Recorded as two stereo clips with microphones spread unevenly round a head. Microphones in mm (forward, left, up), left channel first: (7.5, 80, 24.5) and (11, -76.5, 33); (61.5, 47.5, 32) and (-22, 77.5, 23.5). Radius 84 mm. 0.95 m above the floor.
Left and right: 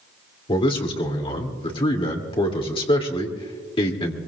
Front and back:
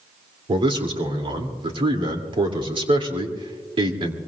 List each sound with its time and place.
0.5 s a man speaking: 145° left, 2.5 m